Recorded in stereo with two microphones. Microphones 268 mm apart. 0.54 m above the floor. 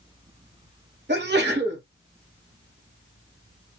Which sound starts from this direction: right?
A sneeze, at 1.1 s.